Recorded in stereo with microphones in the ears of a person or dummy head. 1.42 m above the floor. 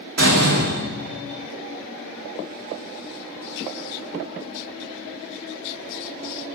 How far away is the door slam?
About 3 m.